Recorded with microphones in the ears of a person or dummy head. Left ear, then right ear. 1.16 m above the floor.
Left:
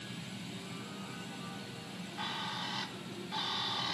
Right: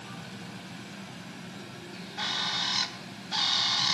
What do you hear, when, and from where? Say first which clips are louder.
0.0 s a fan: right 3 dB; 60° right (ahead or behind)
1.9 s a bird: right 8 dB; 45° right (ahead or behind)